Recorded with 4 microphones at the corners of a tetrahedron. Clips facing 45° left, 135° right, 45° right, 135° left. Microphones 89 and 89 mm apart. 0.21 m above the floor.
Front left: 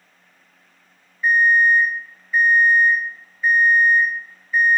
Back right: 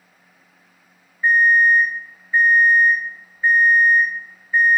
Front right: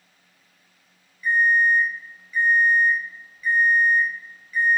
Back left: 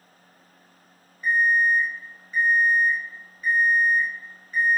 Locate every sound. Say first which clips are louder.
1.2 s an alarm clock: back right 1 dB, front right 2 dB; 170° left, 0.5 m